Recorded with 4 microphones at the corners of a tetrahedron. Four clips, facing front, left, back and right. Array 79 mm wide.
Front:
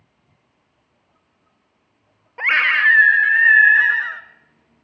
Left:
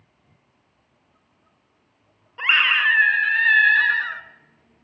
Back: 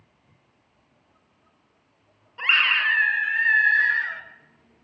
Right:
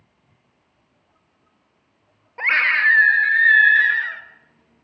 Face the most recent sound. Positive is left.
turn(degrees=40)